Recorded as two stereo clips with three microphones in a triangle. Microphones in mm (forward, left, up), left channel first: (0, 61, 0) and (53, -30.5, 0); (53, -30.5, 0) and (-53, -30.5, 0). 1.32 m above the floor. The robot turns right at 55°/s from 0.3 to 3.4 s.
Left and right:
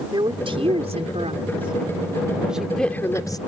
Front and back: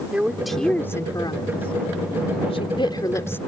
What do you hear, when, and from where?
0.1 s a woman speaking: 100° right; by 3.4 s 70° left